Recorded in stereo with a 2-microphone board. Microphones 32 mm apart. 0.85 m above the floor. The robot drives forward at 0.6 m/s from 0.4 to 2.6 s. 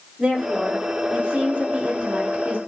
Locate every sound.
0.2 s a woman speaking: 35° right (ahead or behind), 2 m; by 2.6 s 70° right (ahead or behind), 1.3 m